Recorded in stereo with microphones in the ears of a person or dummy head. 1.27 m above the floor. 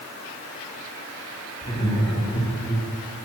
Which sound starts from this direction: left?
Laughter, at 1.6 s.